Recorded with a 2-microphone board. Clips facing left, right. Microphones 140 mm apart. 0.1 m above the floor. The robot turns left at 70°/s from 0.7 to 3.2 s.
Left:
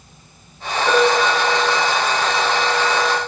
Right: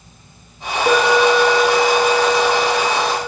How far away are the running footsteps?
I don't hear running footsteps.